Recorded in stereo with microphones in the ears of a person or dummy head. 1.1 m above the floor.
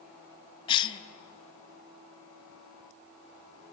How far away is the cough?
About 0.8 m.